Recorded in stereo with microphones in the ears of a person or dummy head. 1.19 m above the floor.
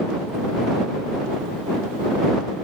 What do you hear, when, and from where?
Only background noise.